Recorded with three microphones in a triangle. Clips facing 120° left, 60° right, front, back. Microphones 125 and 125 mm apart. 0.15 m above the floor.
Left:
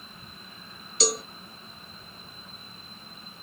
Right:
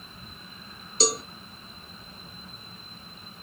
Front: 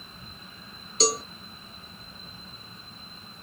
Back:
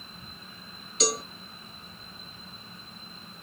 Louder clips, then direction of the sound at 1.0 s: Right 1 dB, front 2 dB; 25° right.